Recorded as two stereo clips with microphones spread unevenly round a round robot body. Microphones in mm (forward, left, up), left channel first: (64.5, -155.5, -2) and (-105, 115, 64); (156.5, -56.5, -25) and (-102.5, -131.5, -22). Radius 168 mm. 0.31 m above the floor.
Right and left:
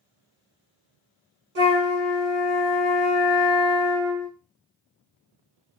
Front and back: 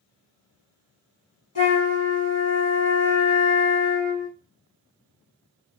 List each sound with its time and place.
1.6 s a flute: 65° left, 1.3 m